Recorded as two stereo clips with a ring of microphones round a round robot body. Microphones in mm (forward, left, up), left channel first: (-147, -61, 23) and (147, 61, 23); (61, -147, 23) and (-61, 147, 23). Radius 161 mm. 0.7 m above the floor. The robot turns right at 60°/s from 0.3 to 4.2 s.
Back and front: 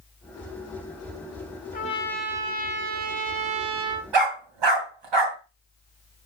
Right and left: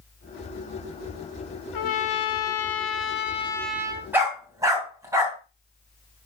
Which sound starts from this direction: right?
A trumpet, at 1.7 s.